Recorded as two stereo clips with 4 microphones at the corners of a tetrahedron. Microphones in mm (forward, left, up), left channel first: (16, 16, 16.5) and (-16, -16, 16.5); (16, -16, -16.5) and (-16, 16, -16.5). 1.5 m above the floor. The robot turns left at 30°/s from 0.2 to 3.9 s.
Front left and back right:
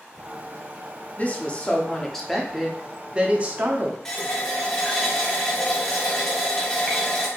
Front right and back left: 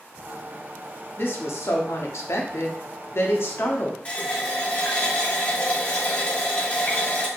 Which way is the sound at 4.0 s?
20° right.